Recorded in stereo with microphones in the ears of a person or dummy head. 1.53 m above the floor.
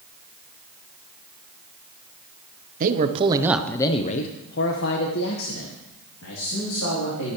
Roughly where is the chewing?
I don't hear chewing.